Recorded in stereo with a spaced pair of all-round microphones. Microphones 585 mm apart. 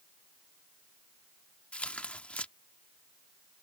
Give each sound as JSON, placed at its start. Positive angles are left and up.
{"t": 1.7, "sound": "tearing paper", "side_deg": 0}